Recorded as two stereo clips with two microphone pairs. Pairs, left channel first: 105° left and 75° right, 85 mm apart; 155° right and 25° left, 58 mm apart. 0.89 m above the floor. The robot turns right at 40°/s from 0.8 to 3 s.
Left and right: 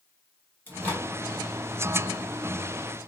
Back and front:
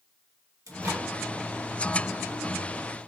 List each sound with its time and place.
0.7 s a microwave: 40° left, 1.4 m; by 1.1 s 50° left, 1.4 m